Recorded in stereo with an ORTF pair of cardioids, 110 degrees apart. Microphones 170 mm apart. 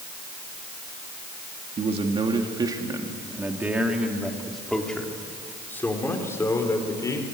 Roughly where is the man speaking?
Ahead right.